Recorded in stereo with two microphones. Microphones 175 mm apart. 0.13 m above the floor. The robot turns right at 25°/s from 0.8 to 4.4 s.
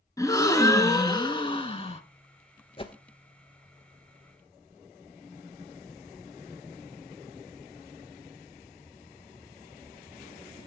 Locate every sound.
0.2 s a gasp: 30° left, 0.5 m; by 2.0 s 60° left, 0.5 m
2.8 s a whoosh: 30° left (ahead or behind), 0.5 m